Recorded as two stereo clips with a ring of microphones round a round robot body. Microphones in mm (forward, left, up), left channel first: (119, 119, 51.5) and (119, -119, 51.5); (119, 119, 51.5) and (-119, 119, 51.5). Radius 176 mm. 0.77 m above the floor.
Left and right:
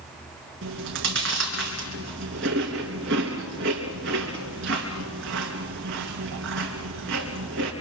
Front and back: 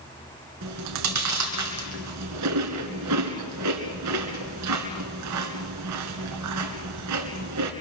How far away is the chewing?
About 2 m.